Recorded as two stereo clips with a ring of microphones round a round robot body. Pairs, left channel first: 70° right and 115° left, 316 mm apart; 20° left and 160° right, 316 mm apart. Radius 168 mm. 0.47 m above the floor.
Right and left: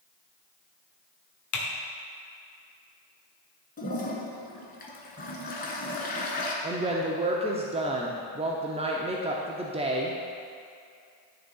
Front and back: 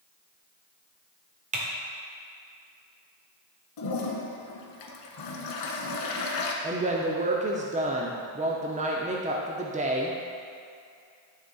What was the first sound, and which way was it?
Typing on a keyboard, 95° right.